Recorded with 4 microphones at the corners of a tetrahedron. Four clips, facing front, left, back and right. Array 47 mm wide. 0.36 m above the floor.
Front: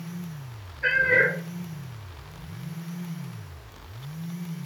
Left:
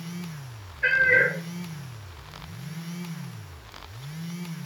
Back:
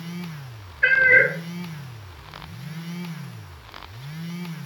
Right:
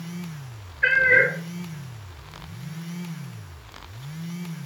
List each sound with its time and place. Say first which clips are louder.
0.8 s a cat meowing: right 2 dB, back 5 dB; 145° right, 1.5 m